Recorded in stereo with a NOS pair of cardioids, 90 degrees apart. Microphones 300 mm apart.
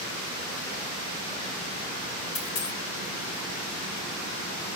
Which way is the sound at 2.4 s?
70° left.